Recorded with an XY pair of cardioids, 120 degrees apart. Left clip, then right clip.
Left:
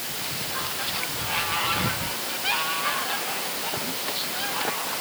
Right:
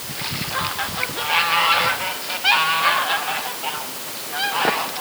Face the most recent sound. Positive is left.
No sound to turn to.